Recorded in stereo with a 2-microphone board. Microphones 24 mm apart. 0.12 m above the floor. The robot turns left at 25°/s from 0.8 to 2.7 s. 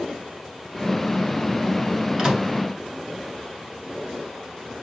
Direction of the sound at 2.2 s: 25° right (ahead or behind).